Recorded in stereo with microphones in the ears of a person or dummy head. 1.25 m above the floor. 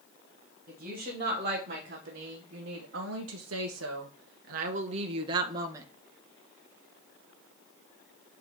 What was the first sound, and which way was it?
A woman speaking, 35° right (ahead or behind).